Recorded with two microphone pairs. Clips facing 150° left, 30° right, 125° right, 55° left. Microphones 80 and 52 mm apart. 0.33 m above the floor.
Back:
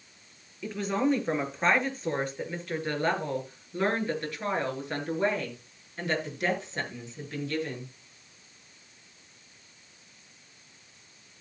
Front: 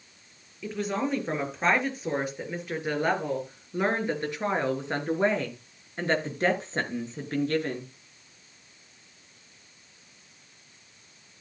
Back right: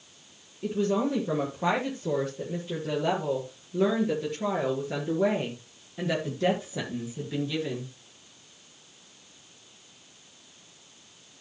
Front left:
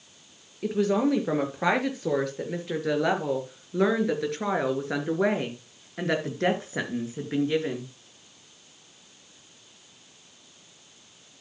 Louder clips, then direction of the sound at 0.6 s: Back 2 dB, front left 3 dB; 60° left.